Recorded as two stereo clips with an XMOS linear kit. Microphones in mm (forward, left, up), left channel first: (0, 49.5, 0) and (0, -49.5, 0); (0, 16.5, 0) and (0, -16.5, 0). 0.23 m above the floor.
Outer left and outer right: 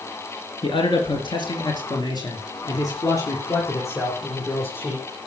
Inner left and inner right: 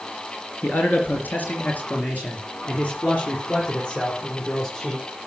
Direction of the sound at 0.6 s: 60° left (ahead or behind).